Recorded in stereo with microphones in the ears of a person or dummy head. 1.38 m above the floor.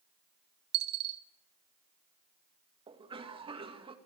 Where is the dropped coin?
60° right (ahead or behind), 1.9 m.